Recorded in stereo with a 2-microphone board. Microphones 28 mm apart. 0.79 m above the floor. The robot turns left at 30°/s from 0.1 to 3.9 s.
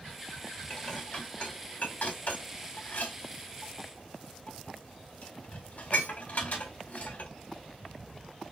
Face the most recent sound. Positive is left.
turn(degrees=60)  # may be behind; listen again after turning